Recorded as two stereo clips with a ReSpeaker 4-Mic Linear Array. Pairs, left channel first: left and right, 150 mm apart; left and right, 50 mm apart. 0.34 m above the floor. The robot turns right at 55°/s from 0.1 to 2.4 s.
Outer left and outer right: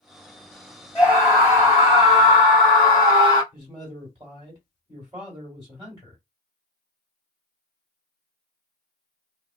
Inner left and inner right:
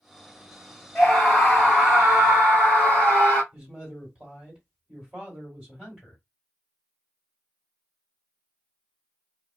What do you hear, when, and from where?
0.9 s a scream: 170° left, 2 m; by 3.4 s 110° right, 2 m
3.5 s a man speaking: 25° right (ahead or behind), 1.8 m